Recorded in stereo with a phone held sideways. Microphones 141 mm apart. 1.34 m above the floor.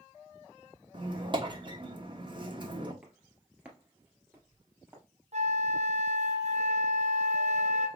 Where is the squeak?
35° right (ahead or behind), 1.1 m.